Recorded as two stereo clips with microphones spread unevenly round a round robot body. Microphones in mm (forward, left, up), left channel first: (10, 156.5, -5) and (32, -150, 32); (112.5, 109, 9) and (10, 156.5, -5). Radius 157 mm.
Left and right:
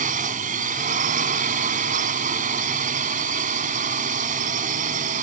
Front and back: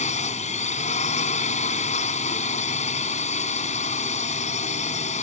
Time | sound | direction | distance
0.0 | a drone | 20° right | ?